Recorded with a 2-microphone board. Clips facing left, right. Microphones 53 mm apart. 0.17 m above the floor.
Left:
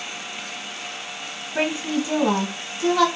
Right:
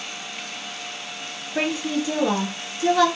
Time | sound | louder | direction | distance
1.6 | a woman speaking | left 1 dB | 30° left (ahead or behind) | 1.5 m